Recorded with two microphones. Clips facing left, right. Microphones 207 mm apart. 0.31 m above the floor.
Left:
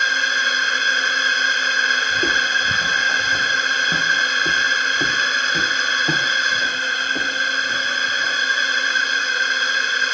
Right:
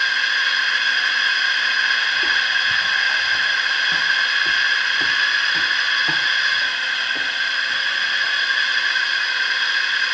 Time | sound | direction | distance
0.0 | a drone | 45° left (ahead or behind) | ?
2.1 | footsteps | 40° left (ahead or behind) | ?